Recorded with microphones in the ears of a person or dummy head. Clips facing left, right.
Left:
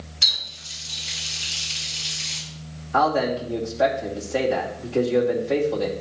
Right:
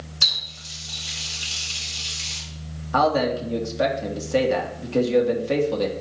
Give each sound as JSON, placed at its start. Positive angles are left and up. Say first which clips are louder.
{"t": 0.2, "sound": "a running tap", "louder": "right 2 dB", "side_deg": -75, "distance_m": 4.0}
{"t": 2.9, "sound": "a man speaking", "louder": "right 1 dB", "side_deg": -70, "distance_m": 2.5}